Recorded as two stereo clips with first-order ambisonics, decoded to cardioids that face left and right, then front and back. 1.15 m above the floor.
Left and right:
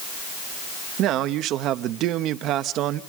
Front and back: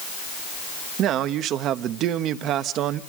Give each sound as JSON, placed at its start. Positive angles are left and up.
{"t": 1.0, "sound": "a man speaking", "azimuth_deg": -135, "distance_m": 0.9}